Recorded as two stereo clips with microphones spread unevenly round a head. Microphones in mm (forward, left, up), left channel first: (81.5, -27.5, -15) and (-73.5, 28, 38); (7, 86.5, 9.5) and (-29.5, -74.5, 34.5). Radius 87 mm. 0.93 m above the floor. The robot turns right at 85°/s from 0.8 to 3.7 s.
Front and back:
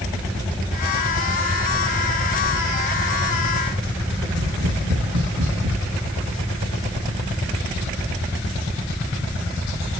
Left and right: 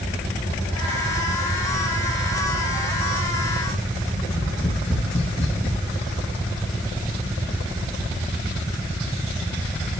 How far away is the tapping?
About 6.5 m.